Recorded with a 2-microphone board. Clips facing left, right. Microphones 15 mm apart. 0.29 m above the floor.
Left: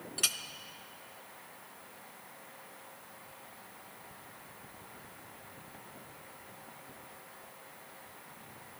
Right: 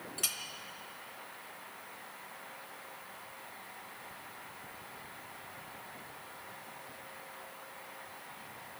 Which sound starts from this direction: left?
A clink, at 0.2 s.